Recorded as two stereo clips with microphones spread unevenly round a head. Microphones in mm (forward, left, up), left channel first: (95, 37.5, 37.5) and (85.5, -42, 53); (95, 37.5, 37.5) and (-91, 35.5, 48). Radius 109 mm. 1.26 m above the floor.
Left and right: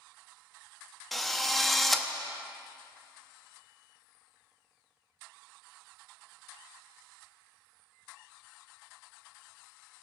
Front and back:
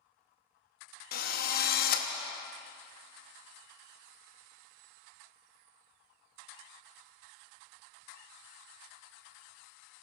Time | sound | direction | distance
1.1 | a drill | 15° right | 0.7 m